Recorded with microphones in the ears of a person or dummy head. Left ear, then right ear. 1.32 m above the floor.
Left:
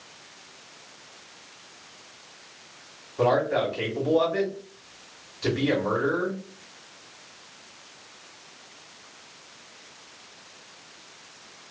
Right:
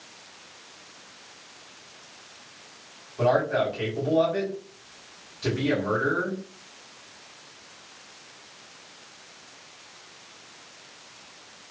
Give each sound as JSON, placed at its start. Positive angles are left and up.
{"t": 3.2, "sound": "a man speaking", "side_deg": 10, "distance_m": 1.4}